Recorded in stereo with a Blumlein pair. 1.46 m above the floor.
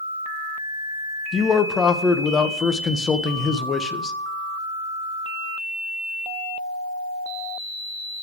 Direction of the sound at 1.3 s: 20° left.